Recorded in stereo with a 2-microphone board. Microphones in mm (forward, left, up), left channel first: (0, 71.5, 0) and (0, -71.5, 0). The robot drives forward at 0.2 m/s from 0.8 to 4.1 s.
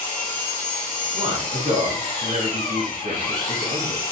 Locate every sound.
0.0 s an engine running: 65° left (ahead or behind), 2.5 m; by 4.1 s 80° left, 2.5 m
1.1 s a man speaking: 55° right (ahead or behind), 2 m; by 4.0 s 60° right (ahead or behind), 2.0 m